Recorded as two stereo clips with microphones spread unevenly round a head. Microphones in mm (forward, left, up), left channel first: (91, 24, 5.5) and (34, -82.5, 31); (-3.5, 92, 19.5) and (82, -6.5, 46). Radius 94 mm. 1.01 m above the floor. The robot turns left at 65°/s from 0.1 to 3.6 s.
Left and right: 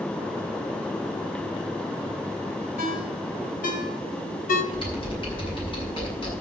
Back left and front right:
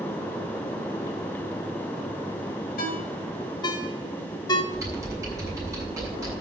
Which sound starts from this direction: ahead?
Typing on a keyboard, at 4.7 s.